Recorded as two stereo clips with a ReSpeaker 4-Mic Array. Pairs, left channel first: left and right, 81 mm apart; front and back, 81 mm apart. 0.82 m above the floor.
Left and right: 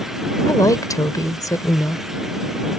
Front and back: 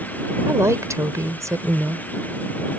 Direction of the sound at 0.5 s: 130° left.